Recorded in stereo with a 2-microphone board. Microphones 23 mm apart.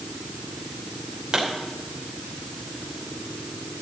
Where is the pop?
45° right (ahead or behind), 3.5 m.